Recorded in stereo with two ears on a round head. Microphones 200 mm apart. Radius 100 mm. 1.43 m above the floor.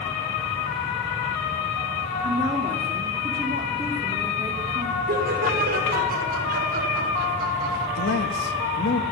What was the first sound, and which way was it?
A woman speaking, 20° right (ahead or behind).